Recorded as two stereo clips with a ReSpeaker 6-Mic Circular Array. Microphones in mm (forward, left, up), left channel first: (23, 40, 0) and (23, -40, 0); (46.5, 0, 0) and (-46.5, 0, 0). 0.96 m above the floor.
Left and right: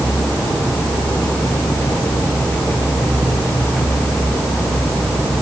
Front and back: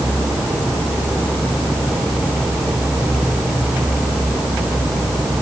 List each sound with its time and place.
Only background noise.